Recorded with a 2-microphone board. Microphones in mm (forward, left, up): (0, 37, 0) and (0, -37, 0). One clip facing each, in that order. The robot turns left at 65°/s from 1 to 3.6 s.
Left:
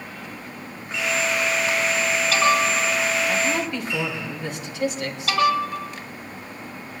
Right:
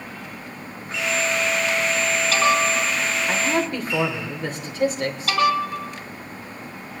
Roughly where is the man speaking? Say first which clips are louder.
Right 1 dB; right.